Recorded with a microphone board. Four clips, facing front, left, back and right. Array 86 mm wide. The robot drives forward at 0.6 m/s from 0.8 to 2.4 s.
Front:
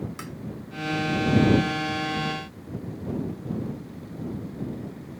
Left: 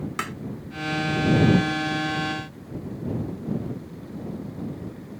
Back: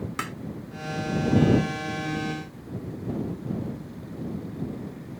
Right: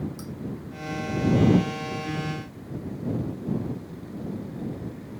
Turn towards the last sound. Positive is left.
turn(degrees=130)